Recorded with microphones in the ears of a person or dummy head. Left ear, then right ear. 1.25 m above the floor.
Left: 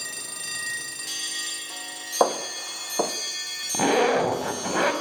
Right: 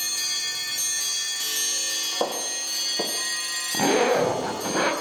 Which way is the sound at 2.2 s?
55° left (ahead or behind).